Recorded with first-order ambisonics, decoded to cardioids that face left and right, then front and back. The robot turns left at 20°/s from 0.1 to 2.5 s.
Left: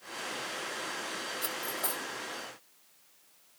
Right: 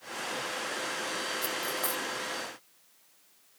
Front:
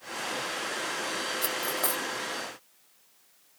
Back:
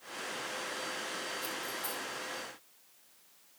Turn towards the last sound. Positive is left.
turn(degrees=-30)